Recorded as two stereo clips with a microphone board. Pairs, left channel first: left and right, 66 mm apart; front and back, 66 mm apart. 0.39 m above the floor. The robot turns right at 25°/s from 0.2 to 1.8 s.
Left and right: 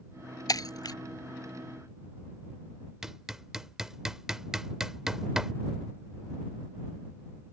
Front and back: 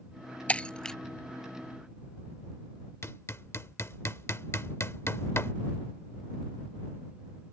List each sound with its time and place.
0.5 s breaking glass: 70° left; by 1.0 s 80° left
3.0 s hammering: 10° right